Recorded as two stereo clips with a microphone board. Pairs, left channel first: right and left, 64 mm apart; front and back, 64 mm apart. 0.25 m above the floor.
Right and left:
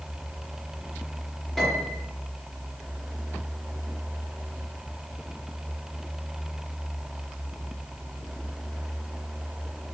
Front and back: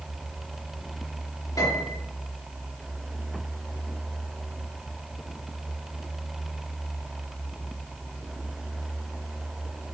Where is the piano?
5° right, 3.5 m.